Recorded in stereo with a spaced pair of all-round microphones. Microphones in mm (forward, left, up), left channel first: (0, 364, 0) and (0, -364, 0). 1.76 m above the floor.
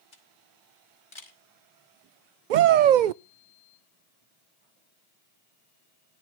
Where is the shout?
85° right, 0.6 m.